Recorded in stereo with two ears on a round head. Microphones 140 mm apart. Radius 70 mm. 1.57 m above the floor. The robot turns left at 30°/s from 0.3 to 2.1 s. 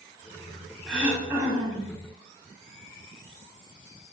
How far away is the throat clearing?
About 1.7 m.